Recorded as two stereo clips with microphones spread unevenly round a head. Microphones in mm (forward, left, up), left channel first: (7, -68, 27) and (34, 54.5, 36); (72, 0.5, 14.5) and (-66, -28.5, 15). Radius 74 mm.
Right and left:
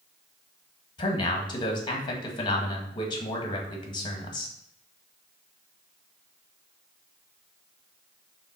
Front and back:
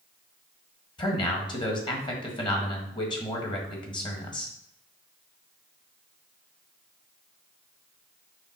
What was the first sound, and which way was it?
A man speaking, 45° right.